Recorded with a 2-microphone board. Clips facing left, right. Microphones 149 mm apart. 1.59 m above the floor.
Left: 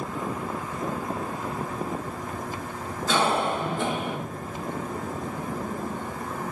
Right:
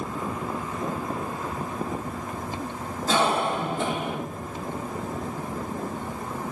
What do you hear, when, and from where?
3.1 s a cough: 40° right (ahead or behind), 5 m